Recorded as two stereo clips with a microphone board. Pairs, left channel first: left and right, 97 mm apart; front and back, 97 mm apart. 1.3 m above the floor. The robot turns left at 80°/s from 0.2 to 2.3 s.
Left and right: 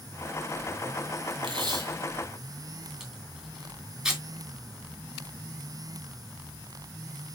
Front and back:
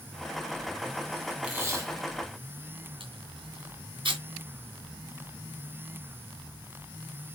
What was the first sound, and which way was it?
Tape being pulled, 105° right.